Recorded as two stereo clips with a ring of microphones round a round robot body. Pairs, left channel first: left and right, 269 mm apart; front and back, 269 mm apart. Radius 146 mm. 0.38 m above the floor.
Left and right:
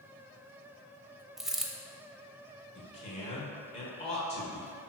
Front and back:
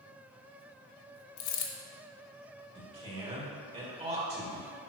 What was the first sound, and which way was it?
A dropped coin, straight ahead.